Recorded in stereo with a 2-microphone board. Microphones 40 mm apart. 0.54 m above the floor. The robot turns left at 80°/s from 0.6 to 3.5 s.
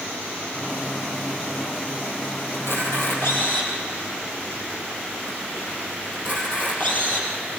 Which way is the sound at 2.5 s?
65° left (ahead or behind).